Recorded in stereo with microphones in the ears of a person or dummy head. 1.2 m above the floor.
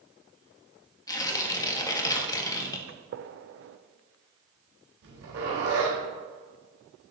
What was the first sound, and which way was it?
Tearing paper, 20° left (ahead or behind).